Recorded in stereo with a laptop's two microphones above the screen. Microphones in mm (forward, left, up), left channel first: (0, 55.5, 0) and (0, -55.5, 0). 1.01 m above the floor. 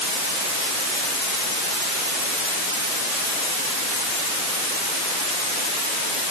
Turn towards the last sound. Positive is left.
No sound to turn to.